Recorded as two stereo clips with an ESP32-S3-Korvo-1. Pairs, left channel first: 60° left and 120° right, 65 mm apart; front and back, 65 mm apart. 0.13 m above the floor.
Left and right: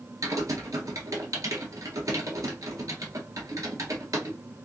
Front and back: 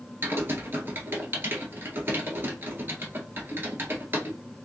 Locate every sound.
0.2 s typing on a keyboard: 130° right, 1.3 m